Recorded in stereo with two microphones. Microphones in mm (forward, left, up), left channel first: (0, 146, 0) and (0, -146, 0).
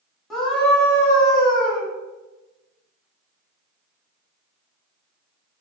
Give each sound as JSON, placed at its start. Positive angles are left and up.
{"t": 0.3, "sound": "a scream", "side_deg": 0, "distance_m": 1.2}